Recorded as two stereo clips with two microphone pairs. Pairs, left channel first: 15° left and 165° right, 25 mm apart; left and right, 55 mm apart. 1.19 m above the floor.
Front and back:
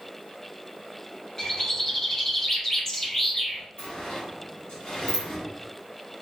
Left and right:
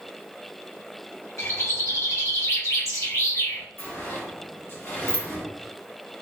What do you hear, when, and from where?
1.4 s a bird: 75° left, 1.0 m
3.8 s a sliding door: 40° left, 1.1 m